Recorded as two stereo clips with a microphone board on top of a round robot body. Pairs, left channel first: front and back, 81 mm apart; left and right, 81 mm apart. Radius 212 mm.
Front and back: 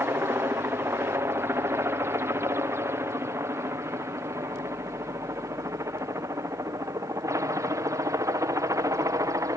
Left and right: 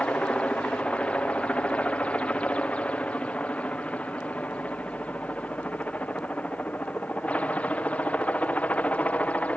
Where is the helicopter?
155° left.